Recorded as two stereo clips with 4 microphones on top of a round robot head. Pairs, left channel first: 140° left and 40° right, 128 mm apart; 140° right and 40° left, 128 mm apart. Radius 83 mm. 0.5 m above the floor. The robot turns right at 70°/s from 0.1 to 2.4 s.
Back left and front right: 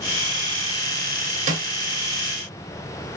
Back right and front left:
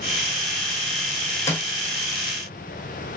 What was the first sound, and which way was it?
A snare drum, 65° right.